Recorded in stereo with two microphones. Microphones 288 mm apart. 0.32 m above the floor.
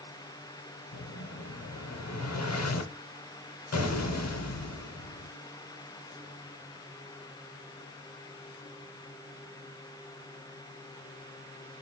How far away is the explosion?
About 0.6 m.